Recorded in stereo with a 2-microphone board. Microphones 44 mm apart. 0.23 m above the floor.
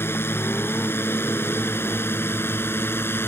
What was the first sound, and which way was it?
A drone, 65° left (ahead or behind).